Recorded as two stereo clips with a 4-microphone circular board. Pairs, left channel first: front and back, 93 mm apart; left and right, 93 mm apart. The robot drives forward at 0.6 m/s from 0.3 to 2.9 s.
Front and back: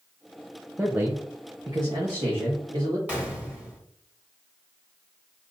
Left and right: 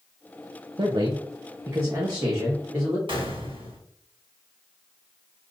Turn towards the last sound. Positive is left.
turn(degrees=-105)